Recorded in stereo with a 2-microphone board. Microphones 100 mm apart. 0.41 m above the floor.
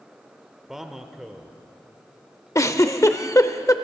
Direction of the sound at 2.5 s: 30° left (ahead or behind).